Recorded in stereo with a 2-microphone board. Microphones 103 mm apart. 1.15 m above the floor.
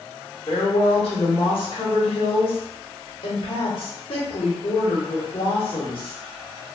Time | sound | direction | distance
0.5 | a woman speaking | 65° left (ahead or behind) | 1.1 m